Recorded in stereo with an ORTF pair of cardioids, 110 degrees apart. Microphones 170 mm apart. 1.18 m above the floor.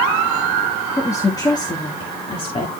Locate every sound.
1.0 s a woman speaking: 15° left, 1.4 m; by 2.7 s 35° left, 2 m